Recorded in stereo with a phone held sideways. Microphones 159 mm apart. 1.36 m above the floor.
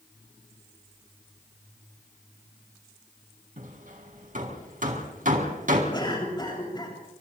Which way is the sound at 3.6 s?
55° right (ahead or behind).